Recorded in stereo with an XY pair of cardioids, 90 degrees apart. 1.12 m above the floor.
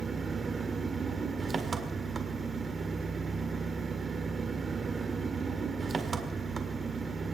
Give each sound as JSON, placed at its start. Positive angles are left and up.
{"t": 0.0, "sound": "an engine running", "azimuth_deg": -45, "distance_m": 1.7}